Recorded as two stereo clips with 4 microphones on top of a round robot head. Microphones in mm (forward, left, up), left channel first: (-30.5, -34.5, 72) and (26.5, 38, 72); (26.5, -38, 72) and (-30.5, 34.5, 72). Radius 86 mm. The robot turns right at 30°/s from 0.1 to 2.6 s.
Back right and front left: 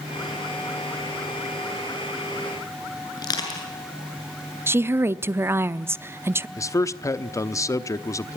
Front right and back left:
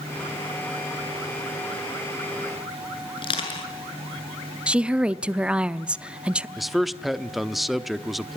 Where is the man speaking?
145° right, 1.1 m.